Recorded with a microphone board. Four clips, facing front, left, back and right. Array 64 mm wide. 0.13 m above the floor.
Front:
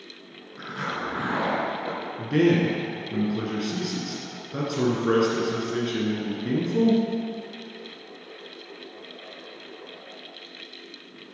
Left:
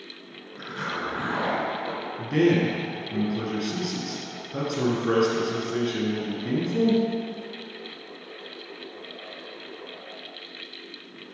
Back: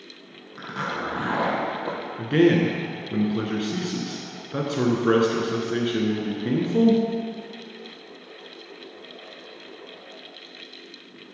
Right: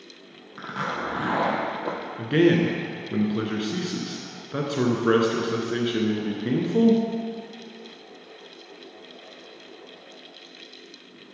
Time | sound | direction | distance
0.6 | a zipper | 110° right | 1.6 m
2.2 | a man speaking | 120° right | 1.3 m